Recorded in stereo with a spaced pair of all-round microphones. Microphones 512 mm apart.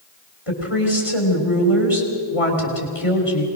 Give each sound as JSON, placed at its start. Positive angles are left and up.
{"t": 0.5, "sound": "a woman speaking", "side_deg": 75, "distance_m": 3.5}